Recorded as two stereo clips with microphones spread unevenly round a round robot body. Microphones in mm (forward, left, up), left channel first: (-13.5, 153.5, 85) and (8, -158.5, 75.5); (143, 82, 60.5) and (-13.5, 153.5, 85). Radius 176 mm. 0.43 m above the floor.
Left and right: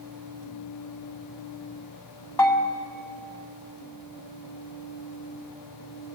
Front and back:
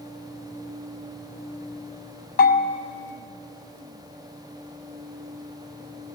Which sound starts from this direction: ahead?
A bell, at 2.4 s.